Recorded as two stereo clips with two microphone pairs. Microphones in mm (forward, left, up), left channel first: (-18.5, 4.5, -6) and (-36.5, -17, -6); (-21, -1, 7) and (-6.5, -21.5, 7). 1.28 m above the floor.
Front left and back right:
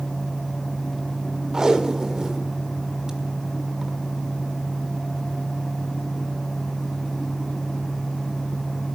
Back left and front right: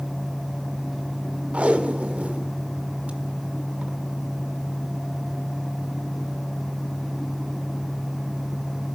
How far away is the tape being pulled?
About 1.5 m.